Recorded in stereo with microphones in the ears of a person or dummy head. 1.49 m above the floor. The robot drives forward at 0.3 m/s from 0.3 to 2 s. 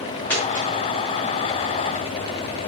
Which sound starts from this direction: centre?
A dropped coin, at 0.3 s.